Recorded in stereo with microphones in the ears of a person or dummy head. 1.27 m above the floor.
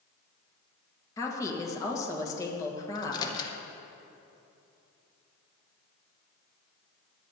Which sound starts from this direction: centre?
A woman speaking, at 1.2 s.